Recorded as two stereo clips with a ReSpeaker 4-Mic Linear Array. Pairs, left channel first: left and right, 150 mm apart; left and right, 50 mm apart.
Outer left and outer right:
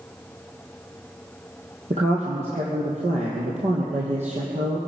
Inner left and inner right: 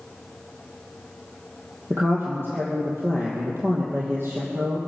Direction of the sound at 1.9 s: 50° right (ahead or behind).